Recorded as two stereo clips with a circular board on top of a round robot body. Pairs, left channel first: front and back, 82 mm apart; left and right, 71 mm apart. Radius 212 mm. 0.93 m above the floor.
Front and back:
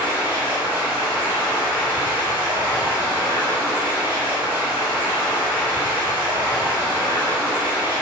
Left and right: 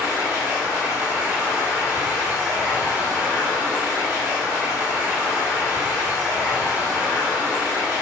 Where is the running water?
5° right, 1.4 m.